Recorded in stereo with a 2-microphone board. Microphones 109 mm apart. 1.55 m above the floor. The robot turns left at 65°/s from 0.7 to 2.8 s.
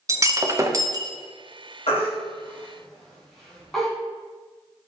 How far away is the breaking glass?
About 0.8 m.